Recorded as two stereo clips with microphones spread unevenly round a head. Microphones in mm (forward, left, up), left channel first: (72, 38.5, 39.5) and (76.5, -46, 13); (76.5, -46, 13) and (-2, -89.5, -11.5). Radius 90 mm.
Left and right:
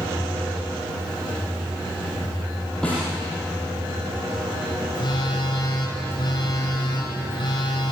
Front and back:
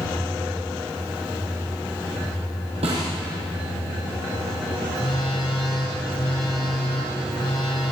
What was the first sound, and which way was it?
A snare drum, 175° left.